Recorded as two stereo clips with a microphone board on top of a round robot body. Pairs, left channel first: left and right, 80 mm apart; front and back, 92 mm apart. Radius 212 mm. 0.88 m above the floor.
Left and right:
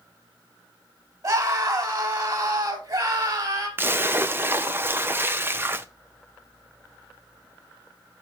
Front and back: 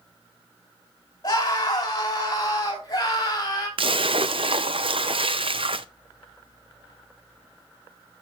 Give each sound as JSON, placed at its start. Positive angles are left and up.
{"t": 1.2, "sound": "a scream", "azimuth_deg": -50, "distance_m": 5.0}
{"t": 3.8, "sound": "a splash", "azimuth_deg": -155, "distance_m": 0.6}